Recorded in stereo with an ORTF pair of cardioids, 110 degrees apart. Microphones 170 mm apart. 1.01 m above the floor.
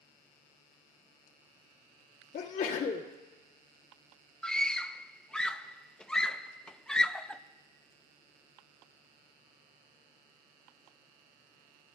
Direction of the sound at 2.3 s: 65° left.